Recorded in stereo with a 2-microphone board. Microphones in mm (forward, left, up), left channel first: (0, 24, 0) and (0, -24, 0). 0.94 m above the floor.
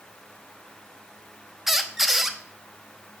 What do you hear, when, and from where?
1.7 s a squeak: 5° right (ahead or behind), 0.8 m